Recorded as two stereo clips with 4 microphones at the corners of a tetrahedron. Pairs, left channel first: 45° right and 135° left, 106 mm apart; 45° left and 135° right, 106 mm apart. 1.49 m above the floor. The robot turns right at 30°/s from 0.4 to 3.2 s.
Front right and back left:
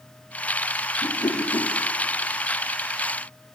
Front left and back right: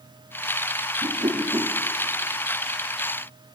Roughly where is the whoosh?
Right.